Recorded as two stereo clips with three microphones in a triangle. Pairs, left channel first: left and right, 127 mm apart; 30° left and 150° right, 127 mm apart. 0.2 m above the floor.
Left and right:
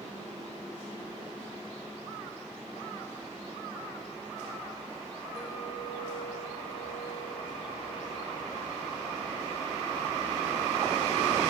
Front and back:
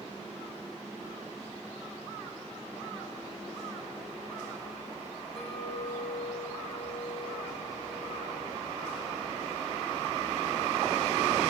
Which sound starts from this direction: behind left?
A clink, at 5.3 s.